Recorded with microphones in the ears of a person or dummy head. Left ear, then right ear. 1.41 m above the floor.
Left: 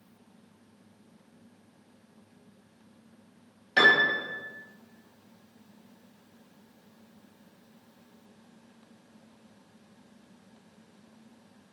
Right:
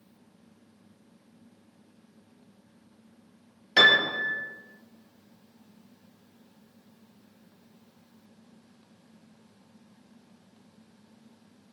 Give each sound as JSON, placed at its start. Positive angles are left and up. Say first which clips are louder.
{"t": 3.8, "sound": "a piano", "louder": "right 1 dB", "side_deg": -20, "distance_m": 0.6}